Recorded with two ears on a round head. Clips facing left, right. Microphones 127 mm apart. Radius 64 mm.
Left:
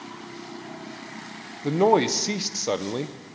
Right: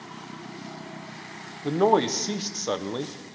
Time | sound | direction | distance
1.6 | a man speaking | 10° left (ahead or behind) | 0.6 m